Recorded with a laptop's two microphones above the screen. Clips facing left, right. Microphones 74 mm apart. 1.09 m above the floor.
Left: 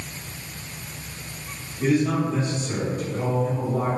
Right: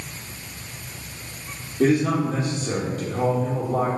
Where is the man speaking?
75° right (ahead or behind), 1.3 m.